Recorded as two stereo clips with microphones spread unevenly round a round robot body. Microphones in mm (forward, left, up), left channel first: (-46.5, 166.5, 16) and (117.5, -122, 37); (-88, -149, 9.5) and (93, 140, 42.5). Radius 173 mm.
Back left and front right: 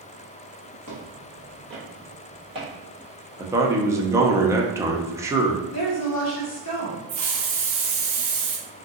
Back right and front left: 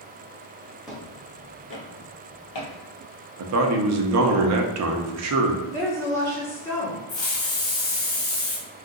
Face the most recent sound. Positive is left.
turn(degrees=-80)